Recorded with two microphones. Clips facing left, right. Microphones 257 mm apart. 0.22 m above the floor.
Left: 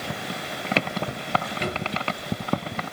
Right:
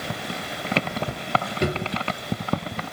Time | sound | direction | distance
1.6 | a drawer | 50° right (ahead or behind) | 1.0 m